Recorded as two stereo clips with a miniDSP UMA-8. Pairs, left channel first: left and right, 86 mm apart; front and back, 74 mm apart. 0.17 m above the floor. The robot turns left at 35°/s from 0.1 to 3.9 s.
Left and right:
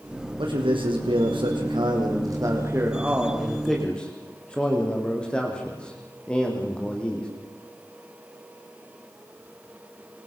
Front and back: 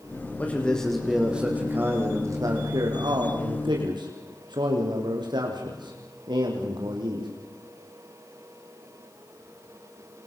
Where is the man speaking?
70° right, 7.5 m; by 7.3 s 170° left, 7.5 m.